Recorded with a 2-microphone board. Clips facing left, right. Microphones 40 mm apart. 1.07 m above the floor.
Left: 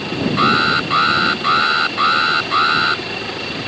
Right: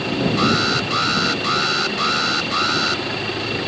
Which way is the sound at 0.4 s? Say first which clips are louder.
Left 7 dB; 25° left (ahead or behind).